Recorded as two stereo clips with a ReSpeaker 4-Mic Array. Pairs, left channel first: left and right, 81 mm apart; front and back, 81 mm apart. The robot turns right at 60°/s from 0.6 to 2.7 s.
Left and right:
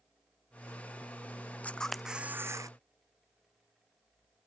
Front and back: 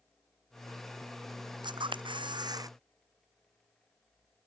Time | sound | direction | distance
1.6 | a camera shutter | 160° left | ?